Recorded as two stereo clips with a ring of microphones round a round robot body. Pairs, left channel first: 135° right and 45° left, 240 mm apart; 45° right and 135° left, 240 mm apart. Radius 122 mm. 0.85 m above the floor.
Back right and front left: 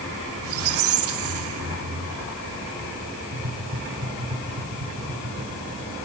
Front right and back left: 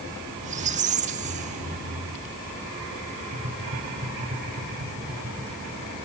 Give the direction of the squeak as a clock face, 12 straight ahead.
9 o'clock.